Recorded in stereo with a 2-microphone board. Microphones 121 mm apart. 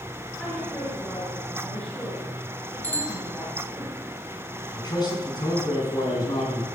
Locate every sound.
0.4 s a woman speaking: 10° left (ahead or behind), 7.5 m
2.8 s a bicycle bell: 15° left (ahead or behind), 2.5 m
4.7 s a man speaking: 35° left (ahead or behind), 5 m